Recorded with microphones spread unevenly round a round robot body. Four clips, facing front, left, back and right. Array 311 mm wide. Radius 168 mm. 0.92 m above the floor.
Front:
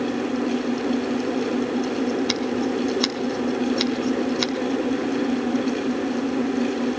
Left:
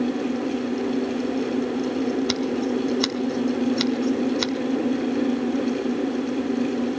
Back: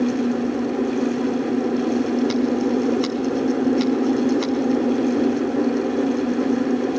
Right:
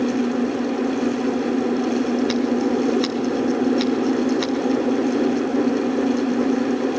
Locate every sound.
2.3 s scissors: 80° left, 1.8 m